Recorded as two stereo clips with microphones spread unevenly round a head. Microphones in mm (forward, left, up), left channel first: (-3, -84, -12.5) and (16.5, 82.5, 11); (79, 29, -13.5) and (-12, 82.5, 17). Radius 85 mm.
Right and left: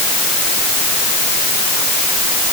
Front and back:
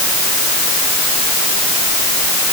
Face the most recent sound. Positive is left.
No sound to turn to.